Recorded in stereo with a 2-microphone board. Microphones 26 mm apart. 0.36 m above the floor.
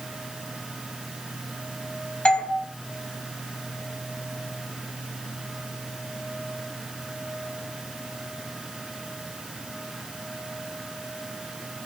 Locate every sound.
2.2 s a doorbell: 50° left (ahead or behind), 2.5 m